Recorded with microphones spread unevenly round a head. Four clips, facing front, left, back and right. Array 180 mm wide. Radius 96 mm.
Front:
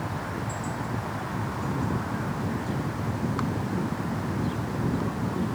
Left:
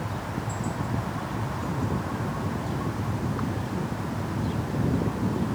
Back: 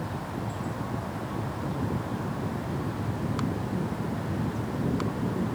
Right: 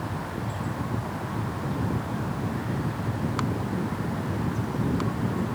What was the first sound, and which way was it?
Only background noise.